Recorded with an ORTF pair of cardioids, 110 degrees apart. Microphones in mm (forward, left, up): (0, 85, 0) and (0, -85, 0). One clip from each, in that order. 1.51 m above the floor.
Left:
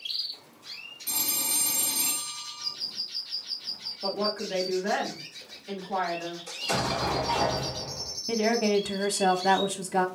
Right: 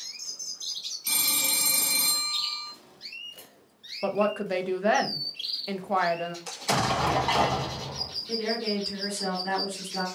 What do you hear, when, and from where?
1.1 s a phone ringing: 65° right, 1.2 m
4.0 s a woman speaking: 50° right, 0.7 m
6.5 s an explosion: 55° right, 0.9 m
8.3 s a woman speaking: 70° left, 0.6 m